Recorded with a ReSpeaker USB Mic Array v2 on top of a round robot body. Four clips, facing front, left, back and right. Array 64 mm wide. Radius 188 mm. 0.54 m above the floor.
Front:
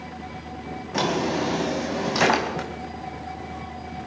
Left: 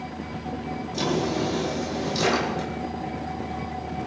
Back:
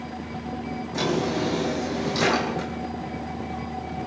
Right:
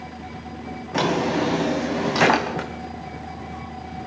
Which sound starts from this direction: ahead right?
A drawer, at 0.9 s.